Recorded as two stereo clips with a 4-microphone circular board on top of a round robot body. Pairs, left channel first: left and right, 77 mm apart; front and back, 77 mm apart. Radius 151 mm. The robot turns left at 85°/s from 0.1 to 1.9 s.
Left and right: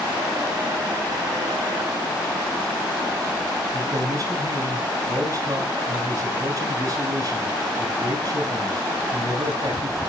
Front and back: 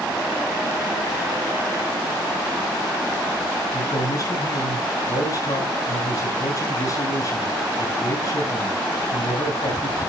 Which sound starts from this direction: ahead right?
A man speaking, at 3.7 s.